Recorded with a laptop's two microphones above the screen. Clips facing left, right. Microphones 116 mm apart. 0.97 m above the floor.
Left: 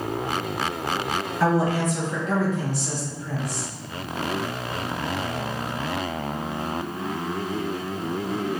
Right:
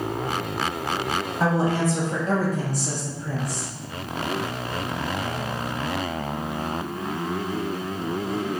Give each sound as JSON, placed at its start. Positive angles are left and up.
{"t": 1.4, "sound": "a woman speaking", "side_deg": -20, "distance_m": 0.7}